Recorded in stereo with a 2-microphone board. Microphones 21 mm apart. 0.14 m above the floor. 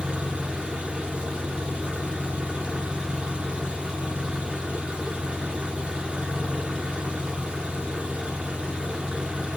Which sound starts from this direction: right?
An engine running, at 0.0 s.